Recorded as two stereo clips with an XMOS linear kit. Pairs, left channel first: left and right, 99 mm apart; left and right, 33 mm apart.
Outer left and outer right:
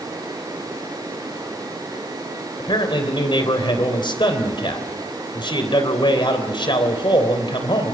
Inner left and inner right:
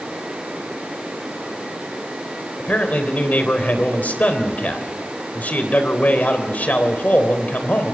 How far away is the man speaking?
About 3.5 m.